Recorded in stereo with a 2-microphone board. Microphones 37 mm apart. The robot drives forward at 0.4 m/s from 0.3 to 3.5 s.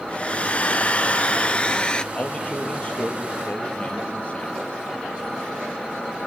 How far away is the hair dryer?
About 0.6 m.